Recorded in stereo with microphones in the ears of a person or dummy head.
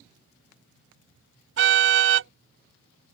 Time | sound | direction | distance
1.6 | a car horn | 65° right (ahead or behind) | ?